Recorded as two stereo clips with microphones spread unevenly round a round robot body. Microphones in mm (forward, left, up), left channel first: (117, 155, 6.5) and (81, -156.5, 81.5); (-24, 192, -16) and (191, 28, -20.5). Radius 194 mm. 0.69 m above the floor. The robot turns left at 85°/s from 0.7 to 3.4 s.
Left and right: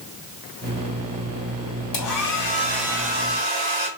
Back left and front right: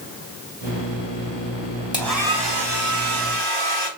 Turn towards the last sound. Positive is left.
turn(degrees=-55)